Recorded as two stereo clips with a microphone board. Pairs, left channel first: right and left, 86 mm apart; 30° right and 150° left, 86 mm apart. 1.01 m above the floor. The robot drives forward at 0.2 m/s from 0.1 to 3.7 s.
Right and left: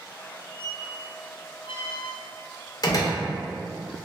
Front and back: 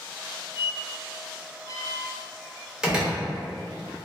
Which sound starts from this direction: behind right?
A door slam, at 2.8 s.